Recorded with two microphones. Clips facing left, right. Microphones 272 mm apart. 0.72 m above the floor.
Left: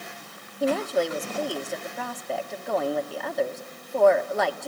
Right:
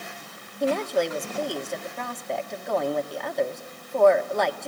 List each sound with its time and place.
0.6 s a woman speaking: centre (ahead or behind), 1.4 m